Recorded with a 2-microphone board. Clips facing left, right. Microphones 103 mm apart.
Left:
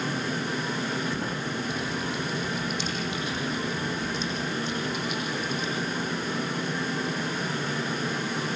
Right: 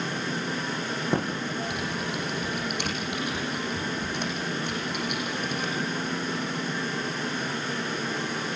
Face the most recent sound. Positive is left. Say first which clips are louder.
# right 3 dB
turn(degrees=-60)  # may be behind; listen again after turning